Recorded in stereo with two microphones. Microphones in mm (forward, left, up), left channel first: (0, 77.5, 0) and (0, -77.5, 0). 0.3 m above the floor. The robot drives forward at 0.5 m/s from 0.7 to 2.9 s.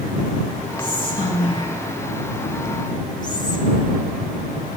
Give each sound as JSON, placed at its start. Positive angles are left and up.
{"t": 0.8, "sound": "whispering", "side_deg": 35, "distance_m": 1.4}